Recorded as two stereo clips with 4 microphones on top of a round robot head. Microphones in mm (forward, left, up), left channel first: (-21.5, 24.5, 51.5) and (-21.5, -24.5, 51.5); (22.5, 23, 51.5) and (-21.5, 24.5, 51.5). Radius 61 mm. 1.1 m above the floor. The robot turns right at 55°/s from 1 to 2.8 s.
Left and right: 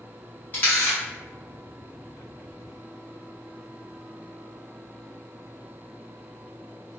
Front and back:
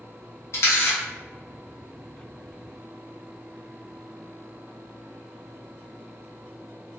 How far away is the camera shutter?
About 0.8 m.